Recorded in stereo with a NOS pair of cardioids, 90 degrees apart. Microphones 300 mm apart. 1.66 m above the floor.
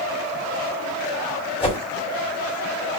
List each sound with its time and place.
1.6 s a whoosh: 15° left, 2.5 m